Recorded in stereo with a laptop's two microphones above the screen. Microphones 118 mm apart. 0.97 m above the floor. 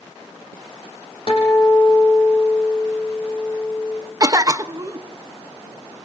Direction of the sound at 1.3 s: 50° left (ahead or behind).